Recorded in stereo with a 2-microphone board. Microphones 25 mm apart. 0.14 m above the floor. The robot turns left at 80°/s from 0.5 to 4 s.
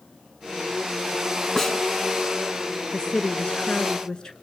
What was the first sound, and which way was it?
A snare drum, 10° left (ahead or behind).